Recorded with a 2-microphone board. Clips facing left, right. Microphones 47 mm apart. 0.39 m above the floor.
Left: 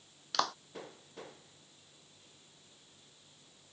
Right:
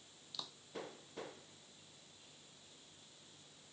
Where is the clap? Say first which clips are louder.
Left 19 dB; 75° left (ahead or behind).